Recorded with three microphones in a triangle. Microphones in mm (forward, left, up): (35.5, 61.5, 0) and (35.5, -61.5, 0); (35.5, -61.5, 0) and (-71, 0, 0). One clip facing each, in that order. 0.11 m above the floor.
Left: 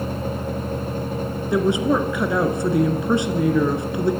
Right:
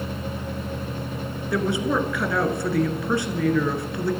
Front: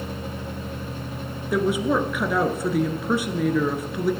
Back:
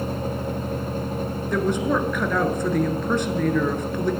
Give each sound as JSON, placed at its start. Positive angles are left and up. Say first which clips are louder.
{"t": 1.5, "sound": "a woman speaking", "louder": "left 4 dB, front 1 dB", "azimuth_deg": 45, "distance_m": 1.3}